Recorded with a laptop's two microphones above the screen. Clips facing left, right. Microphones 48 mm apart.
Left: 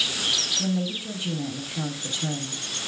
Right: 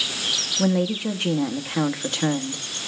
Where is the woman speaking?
75° right (ahead or behind), 1.3 m.